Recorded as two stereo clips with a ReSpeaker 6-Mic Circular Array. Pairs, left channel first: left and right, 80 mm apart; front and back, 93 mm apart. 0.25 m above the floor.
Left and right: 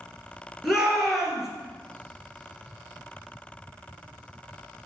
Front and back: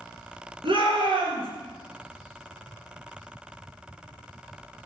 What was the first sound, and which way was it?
A shout, 175° right.